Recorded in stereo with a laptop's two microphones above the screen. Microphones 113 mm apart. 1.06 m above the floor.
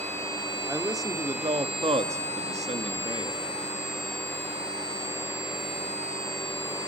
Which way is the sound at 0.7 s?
25° right (ahead or behind).